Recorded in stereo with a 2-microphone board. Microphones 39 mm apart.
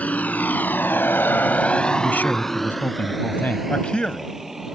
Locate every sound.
0.0 s a vehicle: 40° left (ahead or behind); by 4.8 s 10° right (ahead or behind)
2.0 s a man speaking: 55° left (ahead or behind)
3.7 s a man speaking: 30° left (ahead or behind)